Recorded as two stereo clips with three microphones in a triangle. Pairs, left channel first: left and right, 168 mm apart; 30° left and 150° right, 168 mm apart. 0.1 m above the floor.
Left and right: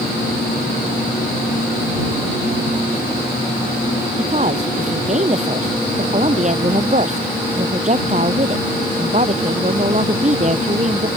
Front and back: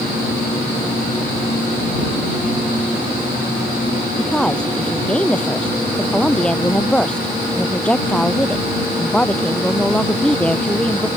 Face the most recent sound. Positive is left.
turn(degrees=-50)